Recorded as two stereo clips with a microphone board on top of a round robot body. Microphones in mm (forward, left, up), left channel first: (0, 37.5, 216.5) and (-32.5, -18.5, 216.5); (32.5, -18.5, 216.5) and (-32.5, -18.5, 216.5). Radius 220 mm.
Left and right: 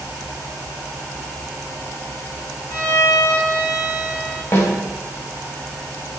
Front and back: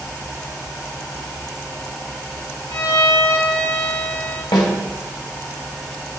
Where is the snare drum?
5° left, 2.5 m.